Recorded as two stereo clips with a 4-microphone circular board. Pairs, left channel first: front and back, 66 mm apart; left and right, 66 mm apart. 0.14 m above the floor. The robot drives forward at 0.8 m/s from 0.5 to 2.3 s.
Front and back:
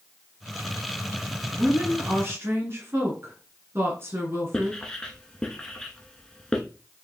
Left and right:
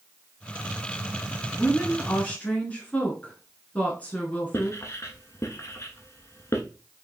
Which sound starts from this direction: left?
Writing, at 4.5 s.